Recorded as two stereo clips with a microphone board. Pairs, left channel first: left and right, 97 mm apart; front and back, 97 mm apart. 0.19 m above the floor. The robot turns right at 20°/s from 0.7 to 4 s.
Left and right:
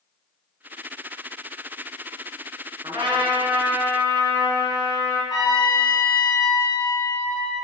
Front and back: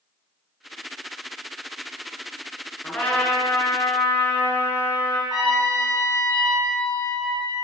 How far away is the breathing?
I don't hear breathing.